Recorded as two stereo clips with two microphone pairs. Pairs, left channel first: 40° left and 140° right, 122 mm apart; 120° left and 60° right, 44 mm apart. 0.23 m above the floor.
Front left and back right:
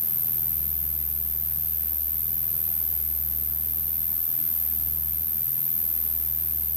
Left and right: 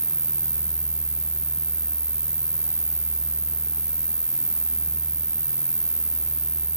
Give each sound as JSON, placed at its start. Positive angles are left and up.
{"t": 0.0, "sound": "an insect", "azimuth_deg": -105}